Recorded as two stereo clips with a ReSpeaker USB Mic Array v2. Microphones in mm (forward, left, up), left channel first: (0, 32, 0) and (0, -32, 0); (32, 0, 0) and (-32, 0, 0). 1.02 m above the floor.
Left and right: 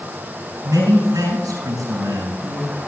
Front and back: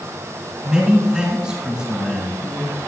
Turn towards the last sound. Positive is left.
turn(degrees=-100)